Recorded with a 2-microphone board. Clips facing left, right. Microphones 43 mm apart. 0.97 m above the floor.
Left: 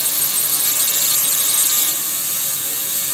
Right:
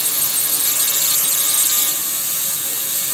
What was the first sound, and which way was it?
Only background noise.